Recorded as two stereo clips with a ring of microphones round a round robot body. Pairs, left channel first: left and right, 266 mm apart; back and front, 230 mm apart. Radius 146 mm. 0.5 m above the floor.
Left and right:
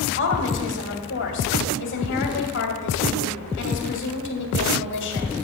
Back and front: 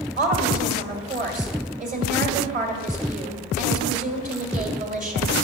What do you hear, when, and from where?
0.2 s a woman speaking: 50° left, 1.9 m